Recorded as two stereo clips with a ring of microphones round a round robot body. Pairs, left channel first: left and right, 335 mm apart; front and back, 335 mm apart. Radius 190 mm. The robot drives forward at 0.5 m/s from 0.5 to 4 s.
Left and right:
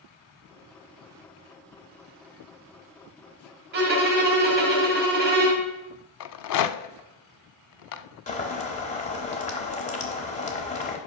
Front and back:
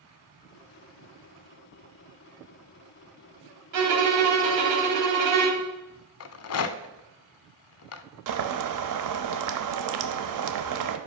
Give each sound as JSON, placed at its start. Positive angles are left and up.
{"t": 3.7, "sound": "a violin", "azimuth_deg": -150, "distance_m": 1.8}
{"t": 6.2, "sound": "a rattle", "azimuth_deg": 50, "distance_m": 0.6}
{"t": 8.3, "sound": "boiling", "azimuth_deg": 160, "distance_m": 0.8}